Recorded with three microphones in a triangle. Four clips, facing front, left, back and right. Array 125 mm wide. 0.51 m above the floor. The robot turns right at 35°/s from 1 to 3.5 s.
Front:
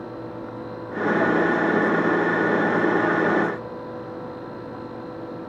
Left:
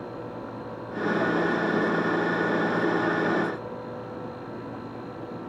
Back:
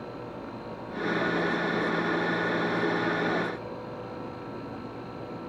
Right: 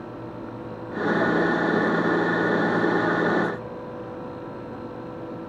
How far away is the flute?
No flute in this recording.